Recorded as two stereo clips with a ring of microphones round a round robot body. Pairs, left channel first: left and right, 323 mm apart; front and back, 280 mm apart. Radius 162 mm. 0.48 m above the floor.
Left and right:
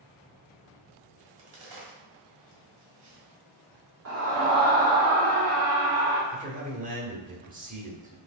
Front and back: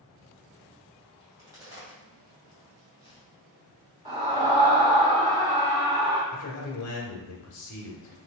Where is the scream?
110° right, 1.3 m.